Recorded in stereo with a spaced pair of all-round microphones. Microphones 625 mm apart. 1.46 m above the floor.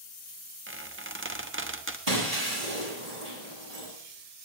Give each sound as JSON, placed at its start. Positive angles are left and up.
{"t": 0.7, "sound": "a squeak", "side_deg": -20, "distance_m": 0.9}
{"t": 2.1, "sound": "breaking glass", "side_deg": -80, "distance_m": 7.0}